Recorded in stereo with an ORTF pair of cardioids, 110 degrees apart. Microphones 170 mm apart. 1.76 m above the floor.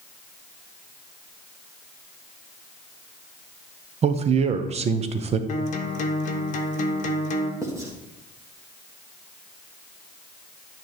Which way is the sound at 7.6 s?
15° right.